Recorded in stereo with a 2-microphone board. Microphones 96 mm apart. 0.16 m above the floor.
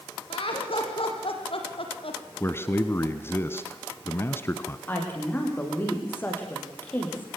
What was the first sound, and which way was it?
Laughter, 70° left (ahead or behind).